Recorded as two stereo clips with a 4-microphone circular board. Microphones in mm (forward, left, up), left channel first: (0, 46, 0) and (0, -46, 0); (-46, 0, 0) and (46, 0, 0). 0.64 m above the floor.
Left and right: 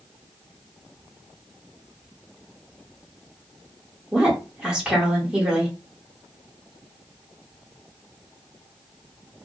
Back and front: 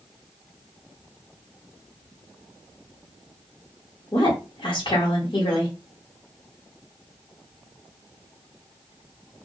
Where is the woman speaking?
170° right, 1.4 m.